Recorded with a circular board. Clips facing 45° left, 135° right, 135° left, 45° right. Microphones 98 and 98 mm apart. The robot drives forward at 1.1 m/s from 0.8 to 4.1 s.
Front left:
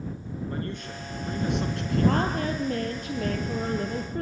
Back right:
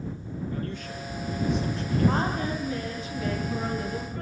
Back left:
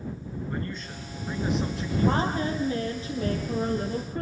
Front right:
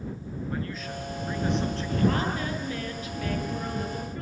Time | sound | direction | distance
0.5 | a man speaking | 40° left | 5 m
2.1 | a woman speaking | 70° left | 7 m